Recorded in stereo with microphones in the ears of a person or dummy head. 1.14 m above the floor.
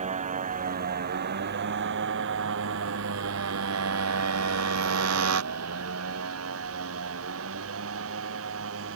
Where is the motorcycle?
40° right (ahead or behind); by 9.0 s 70° right (ahead or behind).